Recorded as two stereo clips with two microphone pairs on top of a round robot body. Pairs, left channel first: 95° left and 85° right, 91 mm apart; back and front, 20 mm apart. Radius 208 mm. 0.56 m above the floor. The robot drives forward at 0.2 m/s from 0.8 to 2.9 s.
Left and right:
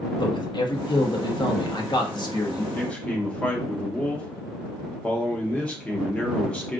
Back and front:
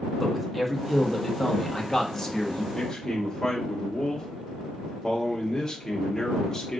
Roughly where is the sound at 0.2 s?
Left.